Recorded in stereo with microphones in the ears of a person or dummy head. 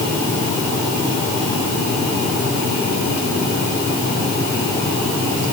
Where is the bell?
I don't hear a bell.